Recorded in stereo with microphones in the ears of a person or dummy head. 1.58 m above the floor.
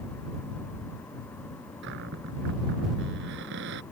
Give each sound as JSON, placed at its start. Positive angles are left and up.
{"t": 1.8, "sound": "a cupboard door", "side_deg": -60}